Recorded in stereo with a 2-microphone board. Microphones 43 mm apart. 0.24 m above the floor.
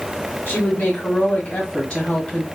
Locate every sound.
0.5 s a woman speaking: 40° left (ahead or behind), 1.5 m; by 2.5 s 15° left (ahead or behind), 1.2 m